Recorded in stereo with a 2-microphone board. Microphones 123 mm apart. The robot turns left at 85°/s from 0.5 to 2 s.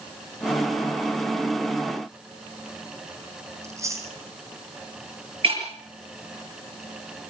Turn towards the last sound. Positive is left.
turn(degrees=-50)  # may be behind; listen again after turning